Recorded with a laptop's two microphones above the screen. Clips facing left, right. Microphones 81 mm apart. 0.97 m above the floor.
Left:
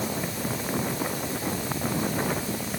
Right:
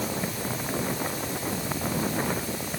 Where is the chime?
I don't hear a chime.